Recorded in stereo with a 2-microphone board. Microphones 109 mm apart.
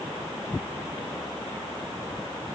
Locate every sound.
Only background noise.